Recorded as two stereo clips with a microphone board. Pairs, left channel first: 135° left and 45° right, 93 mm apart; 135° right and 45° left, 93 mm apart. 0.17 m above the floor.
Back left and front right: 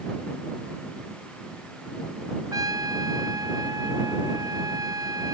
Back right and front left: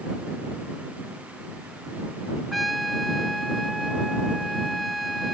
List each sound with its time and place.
2.5 s a trumpet: 45° right